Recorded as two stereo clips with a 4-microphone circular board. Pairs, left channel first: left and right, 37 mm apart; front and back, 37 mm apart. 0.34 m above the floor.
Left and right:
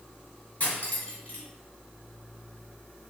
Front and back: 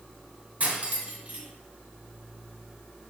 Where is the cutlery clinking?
145° left, 2 m.